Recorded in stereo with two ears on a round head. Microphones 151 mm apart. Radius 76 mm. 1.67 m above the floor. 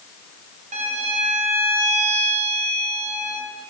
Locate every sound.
0.7 s a violin: 40° right (ahead or behind), 0.9 m